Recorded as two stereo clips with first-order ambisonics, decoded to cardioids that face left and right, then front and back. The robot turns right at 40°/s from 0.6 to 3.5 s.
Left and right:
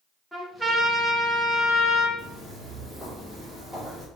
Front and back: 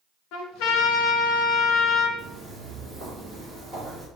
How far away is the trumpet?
About 0.7 m.